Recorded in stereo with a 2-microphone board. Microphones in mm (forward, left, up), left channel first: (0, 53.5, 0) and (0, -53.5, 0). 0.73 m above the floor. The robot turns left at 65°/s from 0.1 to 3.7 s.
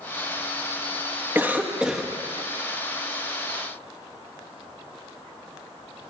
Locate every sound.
1.4 s a cough: 20° right (ahead or behind), 0.8 m; by 2.1 s centre (ahead or behind), 0.8 m